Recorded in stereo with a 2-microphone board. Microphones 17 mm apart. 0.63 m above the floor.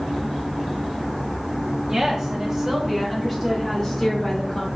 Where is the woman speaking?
45° right (ahead or behind), 1.0 m; by 4.7 s 20° left (ahead or behind), 1.2 m.